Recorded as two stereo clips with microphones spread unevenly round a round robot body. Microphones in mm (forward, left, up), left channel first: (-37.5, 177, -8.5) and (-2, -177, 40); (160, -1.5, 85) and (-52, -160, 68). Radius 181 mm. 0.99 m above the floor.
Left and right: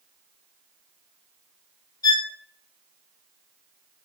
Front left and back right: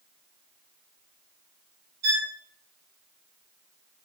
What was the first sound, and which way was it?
A violin, 175° left.